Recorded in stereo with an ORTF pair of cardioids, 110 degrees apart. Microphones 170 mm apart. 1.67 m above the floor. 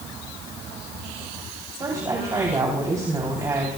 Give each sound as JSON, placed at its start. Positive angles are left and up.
{"t": 1.8, "sound": "a woman speaking", "azimuth_deg": -20, "distance_m": 3.5}